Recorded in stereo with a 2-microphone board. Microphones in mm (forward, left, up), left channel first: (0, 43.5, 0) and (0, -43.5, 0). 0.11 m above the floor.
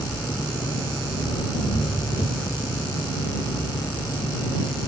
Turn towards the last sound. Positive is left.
turn(degrees=65)  # may be behind; listen again after turning